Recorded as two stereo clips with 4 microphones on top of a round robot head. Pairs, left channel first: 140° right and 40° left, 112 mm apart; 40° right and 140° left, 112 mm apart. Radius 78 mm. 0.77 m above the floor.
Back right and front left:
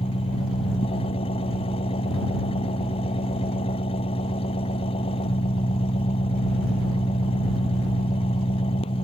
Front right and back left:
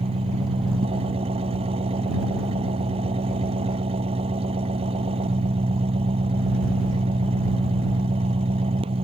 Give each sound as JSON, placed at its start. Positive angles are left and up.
{"t": 0.0, "sound": "an engine running", "azimuth_deg": 180}